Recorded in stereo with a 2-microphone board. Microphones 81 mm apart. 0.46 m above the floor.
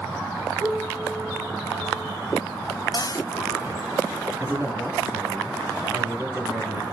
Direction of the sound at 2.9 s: 50° left (ahead or behind).